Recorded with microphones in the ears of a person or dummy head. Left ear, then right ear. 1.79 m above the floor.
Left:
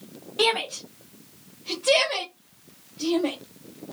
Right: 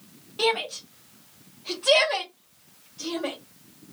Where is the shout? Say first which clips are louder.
Left 2 dB; 20° left (ahead or behind), 0.5 m; by 3.4 s 55° right (ahead or behind), 1.6 m.